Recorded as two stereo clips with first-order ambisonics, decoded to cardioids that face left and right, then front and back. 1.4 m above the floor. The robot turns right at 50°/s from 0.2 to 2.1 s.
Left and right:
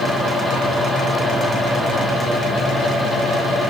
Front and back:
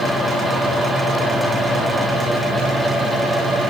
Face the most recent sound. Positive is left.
No sound to turn to.